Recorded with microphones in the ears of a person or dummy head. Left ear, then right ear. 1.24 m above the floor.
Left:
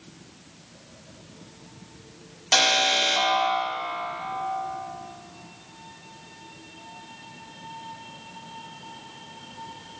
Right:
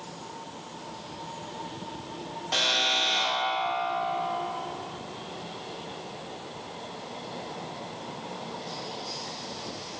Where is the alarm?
65° left (ahead or behind), 1.6 m.